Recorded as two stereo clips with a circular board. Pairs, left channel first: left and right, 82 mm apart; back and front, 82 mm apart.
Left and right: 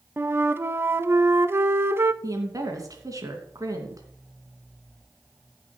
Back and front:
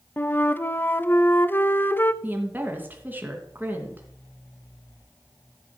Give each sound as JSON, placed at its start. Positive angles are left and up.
{"t": 0.2, "sound": "a flute", "azimuth_deg": -130, "distance_m": 0.5}
{"t": 2.2, "sound": "a woman speaking", "azimuth_deg": -60, "distance_m": 2.5}